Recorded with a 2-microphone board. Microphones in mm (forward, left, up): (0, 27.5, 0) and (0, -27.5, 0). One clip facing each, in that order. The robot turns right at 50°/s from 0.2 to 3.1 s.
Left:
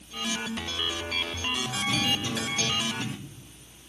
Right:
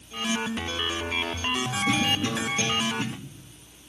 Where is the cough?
85° right, 2.5 m; by 3.1 s 25° right (ahead or behind), 2.5 m.